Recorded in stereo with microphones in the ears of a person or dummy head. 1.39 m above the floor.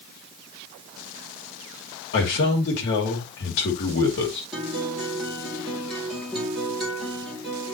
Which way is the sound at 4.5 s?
Centre (ahead or behind).